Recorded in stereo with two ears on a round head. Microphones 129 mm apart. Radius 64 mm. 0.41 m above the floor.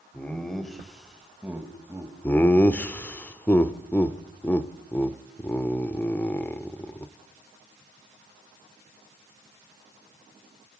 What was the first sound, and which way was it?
Laughter, 10° left (ahead or behind).